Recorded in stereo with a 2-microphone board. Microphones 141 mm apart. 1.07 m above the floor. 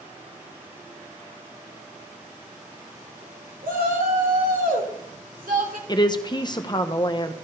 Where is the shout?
80° right, 3.5 m.